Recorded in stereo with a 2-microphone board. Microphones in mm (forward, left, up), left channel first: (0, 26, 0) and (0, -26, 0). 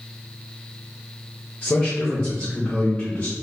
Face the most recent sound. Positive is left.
turn(degrees=30)  # may be behind; listen again after turning